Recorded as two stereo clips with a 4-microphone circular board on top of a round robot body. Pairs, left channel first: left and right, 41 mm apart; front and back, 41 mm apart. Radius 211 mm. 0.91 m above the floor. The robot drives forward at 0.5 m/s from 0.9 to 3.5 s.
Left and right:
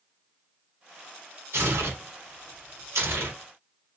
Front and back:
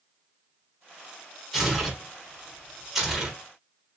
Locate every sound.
1.5 s tearing paper: 90° right, 5 m; by 3.3 s 100° right, 5 m